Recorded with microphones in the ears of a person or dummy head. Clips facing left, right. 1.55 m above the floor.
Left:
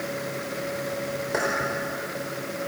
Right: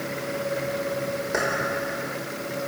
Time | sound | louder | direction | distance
1.3 | keys jangling | even | 5° right (ahead or behind) | 4.5 m